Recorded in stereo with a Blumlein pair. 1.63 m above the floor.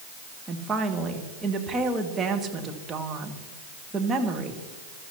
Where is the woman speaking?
15° right, 1.9 m.